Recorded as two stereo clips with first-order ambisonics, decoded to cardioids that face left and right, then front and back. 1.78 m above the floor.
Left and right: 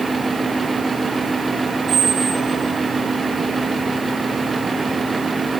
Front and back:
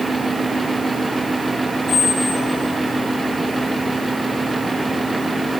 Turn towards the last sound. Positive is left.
turn(degrees=-45)